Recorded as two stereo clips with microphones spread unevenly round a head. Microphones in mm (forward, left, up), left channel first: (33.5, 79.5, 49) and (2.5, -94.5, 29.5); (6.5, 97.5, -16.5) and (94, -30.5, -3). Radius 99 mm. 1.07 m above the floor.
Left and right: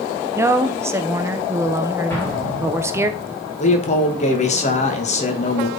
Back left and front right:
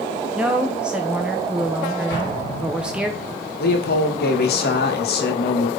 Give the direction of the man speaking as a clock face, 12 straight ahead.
8 o'clock.